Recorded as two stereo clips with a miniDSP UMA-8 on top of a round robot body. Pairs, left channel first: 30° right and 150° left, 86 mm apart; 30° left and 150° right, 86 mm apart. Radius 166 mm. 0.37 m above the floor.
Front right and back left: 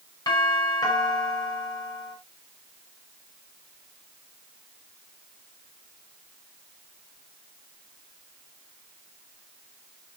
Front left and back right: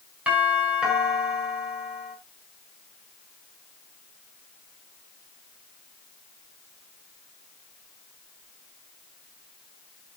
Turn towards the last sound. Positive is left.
turn(degrees=-75)